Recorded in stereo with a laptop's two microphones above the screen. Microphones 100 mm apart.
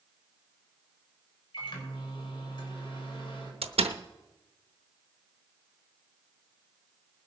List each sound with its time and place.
1.5 s a microwave: 55° left (ahead or behind), 4 m
3.6 s a door slam: 85° right, 0.8 m